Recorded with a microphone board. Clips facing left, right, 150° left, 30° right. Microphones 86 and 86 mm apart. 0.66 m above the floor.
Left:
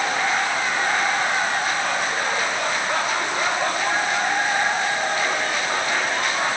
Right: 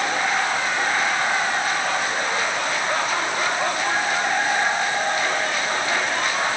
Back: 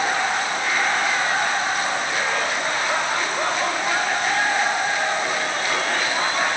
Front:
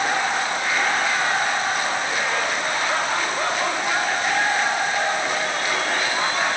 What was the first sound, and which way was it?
Only background noise.